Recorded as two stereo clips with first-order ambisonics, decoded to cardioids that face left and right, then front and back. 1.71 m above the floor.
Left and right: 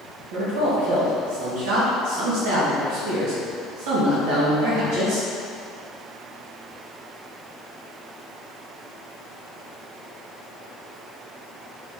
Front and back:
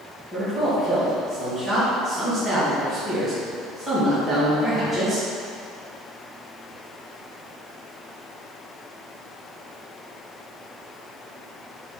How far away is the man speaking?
About 1.9 m.